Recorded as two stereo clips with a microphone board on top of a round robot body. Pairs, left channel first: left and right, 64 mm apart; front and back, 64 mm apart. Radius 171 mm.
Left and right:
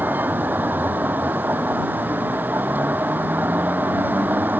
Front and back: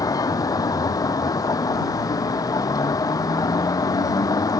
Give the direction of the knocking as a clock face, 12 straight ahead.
No knocking in this recording.